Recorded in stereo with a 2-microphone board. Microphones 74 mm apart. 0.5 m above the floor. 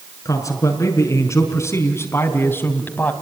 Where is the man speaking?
50° left (ahead or behind), 6 m; by 3.1 s 25° left (ahead or behind), 3.5 m.